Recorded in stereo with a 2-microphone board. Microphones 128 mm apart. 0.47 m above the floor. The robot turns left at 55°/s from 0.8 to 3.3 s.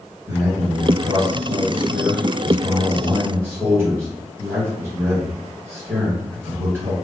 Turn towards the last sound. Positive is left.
turn(degrees=-160)